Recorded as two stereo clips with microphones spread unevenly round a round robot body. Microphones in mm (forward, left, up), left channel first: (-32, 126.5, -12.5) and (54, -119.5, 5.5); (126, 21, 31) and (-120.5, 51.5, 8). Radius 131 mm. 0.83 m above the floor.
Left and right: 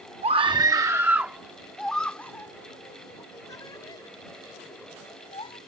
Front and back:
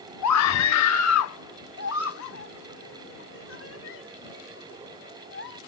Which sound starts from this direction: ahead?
A scream, at 0.2 s.